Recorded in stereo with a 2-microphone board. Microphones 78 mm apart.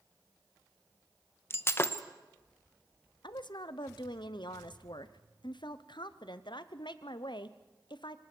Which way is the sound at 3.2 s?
80° left.